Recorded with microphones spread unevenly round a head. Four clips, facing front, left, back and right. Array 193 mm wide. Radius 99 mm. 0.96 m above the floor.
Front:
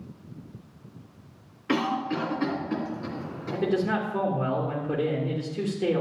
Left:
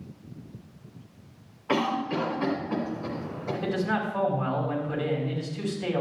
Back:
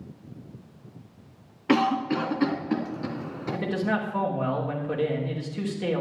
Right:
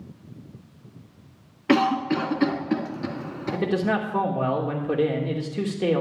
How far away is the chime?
I don't hear a chime.